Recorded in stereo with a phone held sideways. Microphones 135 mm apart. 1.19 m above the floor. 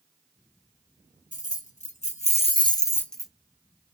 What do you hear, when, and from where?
1.3 s keys jangling: 70° left (ahead or behind), 1.1 m; by 3.3 s 5° right (ahead or behind), 0.5 m